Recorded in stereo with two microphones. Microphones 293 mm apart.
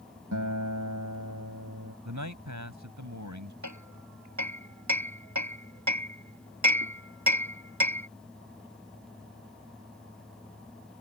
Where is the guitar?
85° right.